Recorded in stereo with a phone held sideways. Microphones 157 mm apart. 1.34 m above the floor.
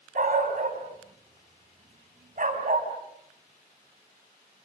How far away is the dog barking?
About 4.5 m.